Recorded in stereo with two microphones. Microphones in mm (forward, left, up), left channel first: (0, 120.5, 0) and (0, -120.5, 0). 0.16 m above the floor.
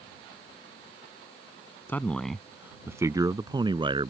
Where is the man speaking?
10° left (ahead or behind); by 4.1 s 20° right (ahead or behind).